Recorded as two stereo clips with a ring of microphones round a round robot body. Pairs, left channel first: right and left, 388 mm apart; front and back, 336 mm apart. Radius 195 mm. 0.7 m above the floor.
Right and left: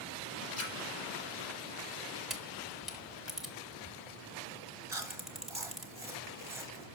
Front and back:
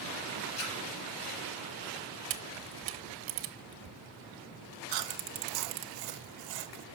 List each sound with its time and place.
0.6 s a splash: 35° right, 4 m
2.3 s a camera shutter: straight behind, 1.0 m
4.9 s chewing: 175° left, 0.9 m